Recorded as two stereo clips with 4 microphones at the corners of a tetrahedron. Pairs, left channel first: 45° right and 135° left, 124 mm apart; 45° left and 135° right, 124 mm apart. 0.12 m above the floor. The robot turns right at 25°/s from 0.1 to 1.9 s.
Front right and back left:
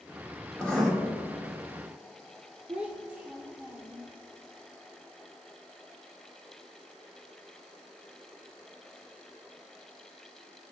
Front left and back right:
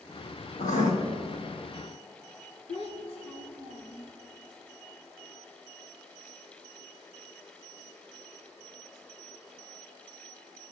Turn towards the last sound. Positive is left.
turn(degrees=55)